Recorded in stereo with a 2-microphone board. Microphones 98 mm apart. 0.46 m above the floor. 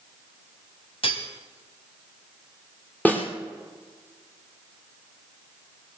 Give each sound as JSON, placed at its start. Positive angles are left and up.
{"t": 1.0, "sound": "cutlery clinking", "side_deg": 70, "distance_m": 1.8}
{"t": 3.0, "sound": "a snare drum", "side_deg": 15, "distance_m": 3.0}